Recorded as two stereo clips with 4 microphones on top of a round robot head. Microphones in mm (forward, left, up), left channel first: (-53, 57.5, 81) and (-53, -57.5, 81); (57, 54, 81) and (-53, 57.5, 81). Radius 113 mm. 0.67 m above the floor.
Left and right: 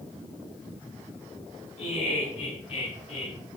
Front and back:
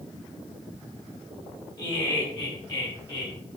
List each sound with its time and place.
1.8 s laughter: 45° left, 7.5 m